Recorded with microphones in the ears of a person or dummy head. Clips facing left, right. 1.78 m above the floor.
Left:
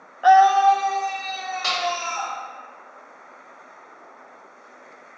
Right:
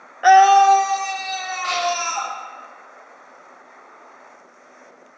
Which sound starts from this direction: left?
A clap, at 1.6 s.